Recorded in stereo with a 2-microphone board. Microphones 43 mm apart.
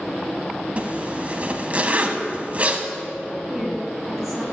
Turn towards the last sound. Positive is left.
turn(degrees=-5)  # may be behind; listen again after turning